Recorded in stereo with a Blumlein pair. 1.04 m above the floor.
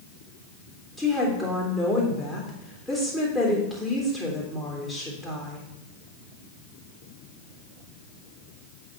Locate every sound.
1.0 s a woman speaking: 5° left, 2.5 m